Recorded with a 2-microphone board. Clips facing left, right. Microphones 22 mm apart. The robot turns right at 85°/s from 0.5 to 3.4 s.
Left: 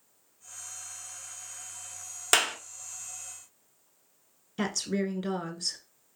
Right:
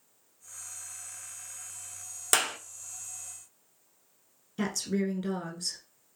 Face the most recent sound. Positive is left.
turn(degrees=20)  # may be behind; listen again after turning